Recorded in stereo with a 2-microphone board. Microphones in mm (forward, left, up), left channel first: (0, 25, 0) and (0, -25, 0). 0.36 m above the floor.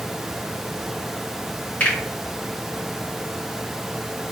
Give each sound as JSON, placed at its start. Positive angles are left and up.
{"t": 1.8, "sound": "a finger snap", "side_deg": 35, "distance_m": 1.5}